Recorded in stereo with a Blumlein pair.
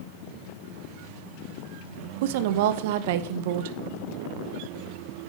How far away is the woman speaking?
About 0.6 m.